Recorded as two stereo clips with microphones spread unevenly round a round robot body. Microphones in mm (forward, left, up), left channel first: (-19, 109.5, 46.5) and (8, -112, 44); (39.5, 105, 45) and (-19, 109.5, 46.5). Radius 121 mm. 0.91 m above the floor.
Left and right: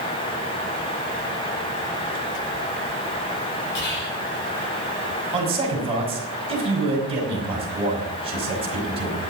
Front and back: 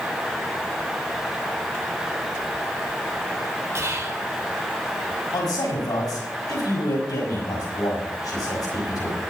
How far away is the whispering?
About 3 m.